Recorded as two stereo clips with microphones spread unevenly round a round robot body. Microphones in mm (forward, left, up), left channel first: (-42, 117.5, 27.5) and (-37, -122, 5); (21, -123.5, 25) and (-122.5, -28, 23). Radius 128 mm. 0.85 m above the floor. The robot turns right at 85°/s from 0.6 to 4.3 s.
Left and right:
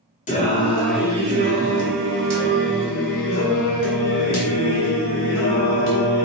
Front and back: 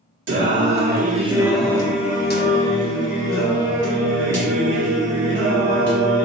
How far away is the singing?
About 1.0 m.